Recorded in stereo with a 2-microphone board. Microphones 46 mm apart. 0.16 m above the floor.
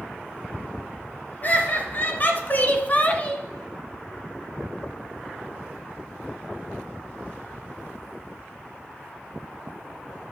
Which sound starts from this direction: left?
Laughter, at 1.4 s.